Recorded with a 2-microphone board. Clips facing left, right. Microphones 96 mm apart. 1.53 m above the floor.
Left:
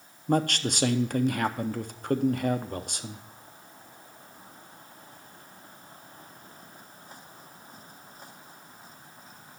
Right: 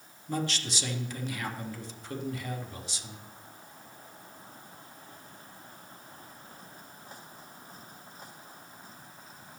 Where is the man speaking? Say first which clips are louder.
Left 8 dB; 55° left (ahead or behind), 0.7 m.